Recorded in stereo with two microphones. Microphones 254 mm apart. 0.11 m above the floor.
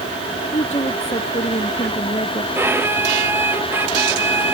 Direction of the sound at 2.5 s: 10° right (ahead or behind).